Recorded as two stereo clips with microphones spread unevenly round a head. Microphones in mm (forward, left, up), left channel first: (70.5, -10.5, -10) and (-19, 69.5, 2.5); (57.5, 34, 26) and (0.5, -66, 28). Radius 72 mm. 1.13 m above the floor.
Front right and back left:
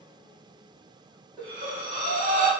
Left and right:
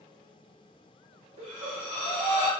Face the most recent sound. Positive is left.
turn(degrees=-165)